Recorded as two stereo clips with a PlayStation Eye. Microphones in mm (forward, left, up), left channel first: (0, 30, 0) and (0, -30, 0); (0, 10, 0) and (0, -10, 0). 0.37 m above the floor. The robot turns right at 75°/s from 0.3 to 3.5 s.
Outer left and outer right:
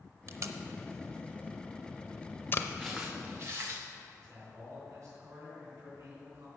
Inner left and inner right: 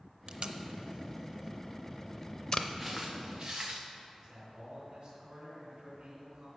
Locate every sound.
0.3 s tape being pulled: 45° right (ahead or behind), 0.6 m; by 2.7 s 45° left (ahead or behind), 0.6 m
2.8 s footsteps: straight behind, 2.5 m; by 3.8 s 125° right, 2.5 m
4.2 s a man speaking: 55° right (ahead or behind), 4 m